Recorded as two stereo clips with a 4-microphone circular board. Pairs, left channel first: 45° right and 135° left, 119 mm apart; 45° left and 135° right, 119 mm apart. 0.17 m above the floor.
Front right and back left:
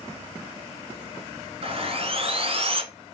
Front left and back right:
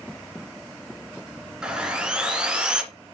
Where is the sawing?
145° left, 1.3 m.